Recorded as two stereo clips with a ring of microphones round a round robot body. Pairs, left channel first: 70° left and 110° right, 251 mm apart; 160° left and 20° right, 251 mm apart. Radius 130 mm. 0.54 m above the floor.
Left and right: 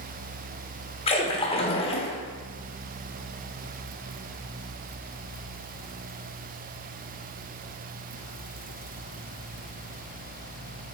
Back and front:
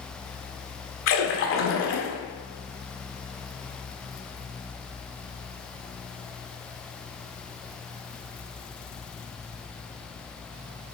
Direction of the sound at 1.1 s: 130° left.